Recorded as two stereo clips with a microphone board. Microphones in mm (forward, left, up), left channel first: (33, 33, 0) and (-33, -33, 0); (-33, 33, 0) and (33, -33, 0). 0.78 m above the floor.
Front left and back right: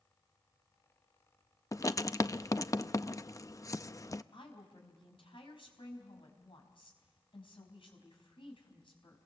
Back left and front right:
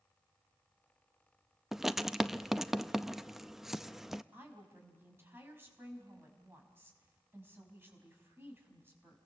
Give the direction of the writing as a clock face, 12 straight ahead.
11 o'clock.